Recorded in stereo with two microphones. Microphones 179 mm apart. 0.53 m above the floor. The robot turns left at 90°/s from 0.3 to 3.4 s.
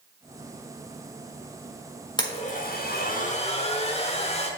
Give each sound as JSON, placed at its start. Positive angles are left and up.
{"t": 2.2, "sound": "a blender", "azimuth_deg": 155, "distance_m": 1.0}